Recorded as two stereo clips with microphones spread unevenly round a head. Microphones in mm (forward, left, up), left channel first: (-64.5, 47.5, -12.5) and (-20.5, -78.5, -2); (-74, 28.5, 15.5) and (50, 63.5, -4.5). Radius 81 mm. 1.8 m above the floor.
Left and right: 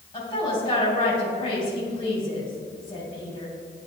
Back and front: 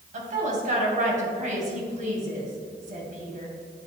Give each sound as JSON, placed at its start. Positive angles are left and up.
{"t": 0.1, "sound": "a woman speaking", "azimuth_deg": 40, "distance_m": 2.5}